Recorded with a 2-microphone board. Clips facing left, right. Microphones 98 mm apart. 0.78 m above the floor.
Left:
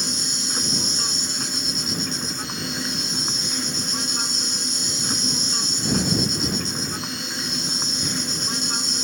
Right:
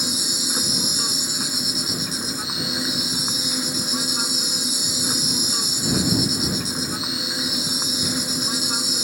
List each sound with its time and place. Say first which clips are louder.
0.0 s an insect: right 2 dB; 5° right (ahead or behind)